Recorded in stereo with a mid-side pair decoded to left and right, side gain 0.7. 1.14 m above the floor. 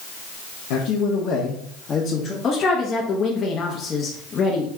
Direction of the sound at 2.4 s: 35° left.